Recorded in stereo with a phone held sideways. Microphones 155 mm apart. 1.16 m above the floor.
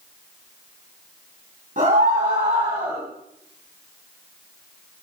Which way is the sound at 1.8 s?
65° right (ahead or behind).